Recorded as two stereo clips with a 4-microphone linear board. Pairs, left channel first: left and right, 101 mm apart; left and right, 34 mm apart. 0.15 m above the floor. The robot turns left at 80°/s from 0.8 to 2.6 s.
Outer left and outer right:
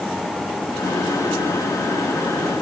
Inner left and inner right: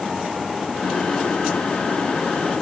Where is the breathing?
No breathing in this recording.